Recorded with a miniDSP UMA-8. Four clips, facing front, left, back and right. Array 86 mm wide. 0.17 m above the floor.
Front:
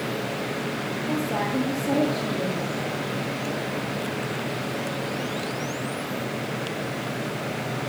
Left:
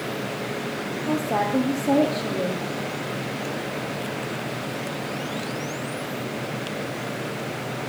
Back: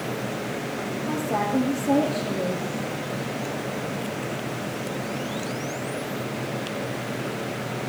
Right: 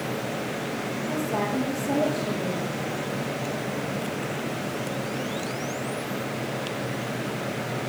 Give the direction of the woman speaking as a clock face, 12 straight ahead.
9 o'clock.